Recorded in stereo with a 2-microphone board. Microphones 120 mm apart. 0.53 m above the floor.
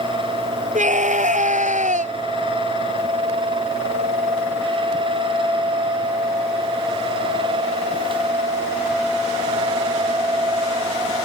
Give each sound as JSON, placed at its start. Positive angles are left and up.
{"t": 0.8, "sound": "a scream", "side_deg": -85}